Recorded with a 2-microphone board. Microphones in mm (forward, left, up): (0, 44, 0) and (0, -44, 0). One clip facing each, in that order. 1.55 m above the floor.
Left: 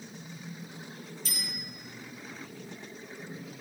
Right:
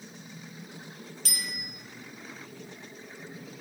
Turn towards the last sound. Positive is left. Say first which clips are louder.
# right 3 dB
turn(degrees=-70)  # may be behind; listen again after turning